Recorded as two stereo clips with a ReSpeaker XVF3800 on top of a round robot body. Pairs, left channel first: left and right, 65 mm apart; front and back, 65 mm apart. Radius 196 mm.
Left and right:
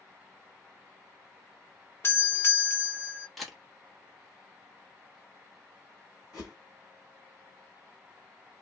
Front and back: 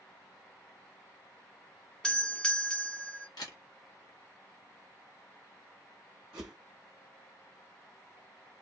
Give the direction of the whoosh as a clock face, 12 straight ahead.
6 o'clock.